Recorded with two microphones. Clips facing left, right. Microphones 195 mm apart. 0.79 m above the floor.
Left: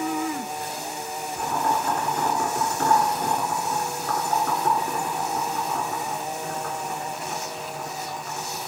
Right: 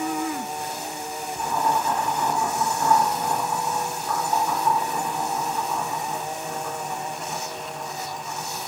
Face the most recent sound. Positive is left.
turn(degrees=65)  # may be behind; listen again after turning